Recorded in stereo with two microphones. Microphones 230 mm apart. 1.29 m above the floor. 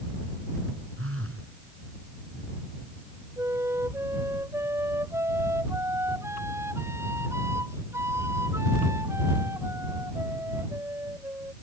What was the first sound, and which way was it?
A phone buzzing, 70° right (ahead or behind).